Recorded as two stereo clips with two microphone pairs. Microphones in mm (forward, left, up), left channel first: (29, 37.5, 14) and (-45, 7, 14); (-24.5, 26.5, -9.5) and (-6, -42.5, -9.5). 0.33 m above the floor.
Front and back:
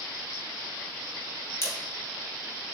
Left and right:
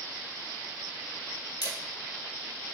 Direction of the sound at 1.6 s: 80° left.